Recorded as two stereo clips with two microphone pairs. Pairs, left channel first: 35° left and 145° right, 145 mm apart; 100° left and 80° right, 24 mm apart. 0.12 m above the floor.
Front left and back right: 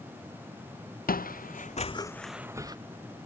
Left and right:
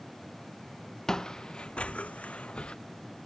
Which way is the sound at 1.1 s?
40° left.